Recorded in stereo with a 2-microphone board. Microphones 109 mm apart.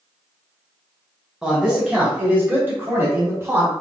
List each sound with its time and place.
1.4 s a man speaking: 5° right (ahead or behind), 1.6 m; by 3.7 s 25° right (ahead or behind), 1.8 m